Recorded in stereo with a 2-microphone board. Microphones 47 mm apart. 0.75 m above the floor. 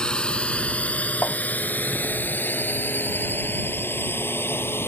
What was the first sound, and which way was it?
A drone, 20° left (ahead or behind).